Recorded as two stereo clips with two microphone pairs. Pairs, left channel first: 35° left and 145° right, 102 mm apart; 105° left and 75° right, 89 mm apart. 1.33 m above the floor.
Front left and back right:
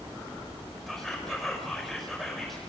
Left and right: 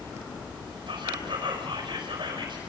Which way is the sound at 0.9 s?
50° right.